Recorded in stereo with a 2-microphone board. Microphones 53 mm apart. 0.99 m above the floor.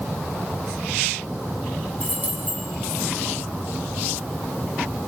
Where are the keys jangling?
30° right (ahead or behind), 6.5 m.